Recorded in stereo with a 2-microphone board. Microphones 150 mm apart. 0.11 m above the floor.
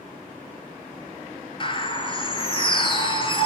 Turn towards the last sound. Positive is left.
turn(degrees=35)  # may be behind; listen again after turning